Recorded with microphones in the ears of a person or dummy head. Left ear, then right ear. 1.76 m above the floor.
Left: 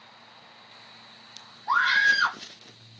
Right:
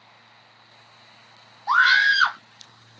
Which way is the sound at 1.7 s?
45° right (ahead or behind).